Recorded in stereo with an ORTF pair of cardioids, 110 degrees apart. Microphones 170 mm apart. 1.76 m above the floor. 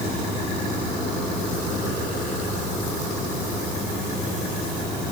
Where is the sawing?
No sawing in this recording.